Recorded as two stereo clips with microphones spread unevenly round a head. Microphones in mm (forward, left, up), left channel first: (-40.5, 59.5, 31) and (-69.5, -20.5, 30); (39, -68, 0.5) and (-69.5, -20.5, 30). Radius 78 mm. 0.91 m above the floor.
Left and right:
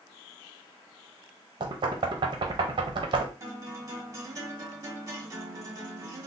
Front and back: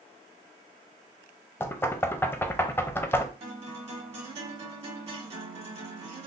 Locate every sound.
1.6 s knocking: 85° right, 0.5 m
3.4 s a guitar: 165° right, 1.6 m